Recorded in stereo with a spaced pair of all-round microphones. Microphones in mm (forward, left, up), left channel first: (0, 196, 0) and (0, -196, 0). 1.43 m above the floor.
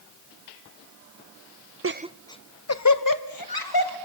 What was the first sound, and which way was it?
Laughter, 35° right (ahead or behind).